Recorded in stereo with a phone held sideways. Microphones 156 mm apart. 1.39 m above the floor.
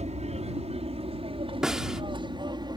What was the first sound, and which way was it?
An aircraft, 45° right (ahead or behind).